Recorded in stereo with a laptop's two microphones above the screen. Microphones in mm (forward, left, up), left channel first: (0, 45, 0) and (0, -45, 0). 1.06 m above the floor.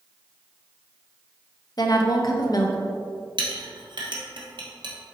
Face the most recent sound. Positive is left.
turn(degrees=-65)  # may be behind; listen again after turning